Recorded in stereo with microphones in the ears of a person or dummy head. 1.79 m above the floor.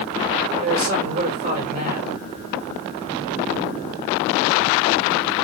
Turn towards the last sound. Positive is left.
turn(degrees=-45)  # may be behind; listen again after turning